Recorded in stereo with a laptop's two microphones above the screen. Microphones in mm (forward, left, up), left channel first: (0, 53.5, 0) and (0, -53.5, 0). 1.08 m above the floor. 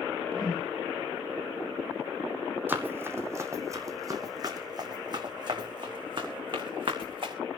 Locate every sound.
0.3 s a whoosh: 40° left (ahead or behind), 4.5 m
2.7 s running footsteps: 20° right (ahead or behind), 2 m; by 7.3 s 50° right (ahead or behind), 4.5 m